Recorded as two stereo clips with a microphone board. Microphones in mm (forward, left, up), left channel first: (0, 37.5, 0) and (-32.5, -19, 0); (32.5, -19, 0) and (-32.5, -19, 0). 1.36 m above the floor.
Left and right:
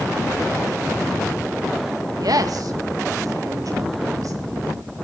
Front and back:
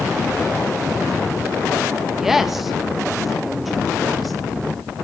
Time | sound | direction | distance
2.2 | a woman speaking | 95° right | 1.7 m